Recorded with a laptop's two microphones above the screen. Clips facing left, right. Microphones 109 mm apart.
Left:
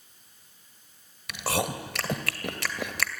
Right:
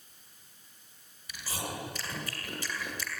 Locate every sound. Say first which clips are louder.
1.3 s chewing: left 10 dB; 80° left, 2.5 m